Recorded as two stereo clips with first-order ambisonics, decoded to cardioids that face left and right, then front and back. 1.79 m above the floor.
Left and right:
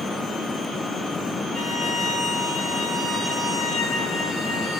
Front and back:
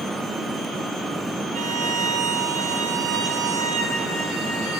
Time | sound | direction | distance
1.5 | a violin | 175° left | 2.5 m